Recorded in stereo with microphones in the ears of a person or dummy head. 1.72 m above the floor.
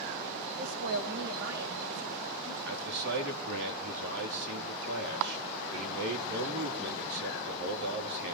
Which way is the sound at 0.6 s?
65° right (ahead or behind).